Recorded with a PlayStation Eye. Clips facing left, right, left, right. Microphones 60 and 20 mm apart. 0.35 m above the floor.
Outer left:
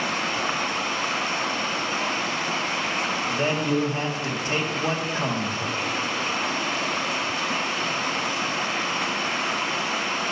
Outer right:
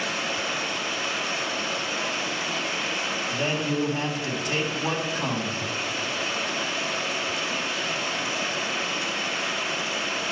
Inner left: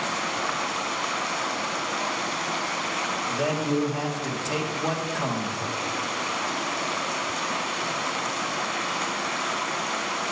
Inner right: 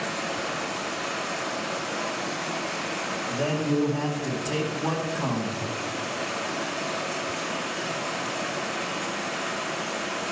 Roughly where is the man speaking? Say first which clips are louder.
Outer left 3 dB, inner right 1 dB; left.